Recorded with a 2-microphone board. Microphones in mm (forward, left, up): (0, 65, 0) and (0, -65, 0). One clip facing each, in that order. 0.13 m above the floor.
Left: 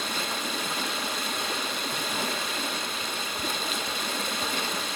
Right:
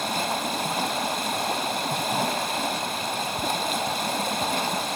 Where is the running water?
55° right (ahead or behind), 0.9 m.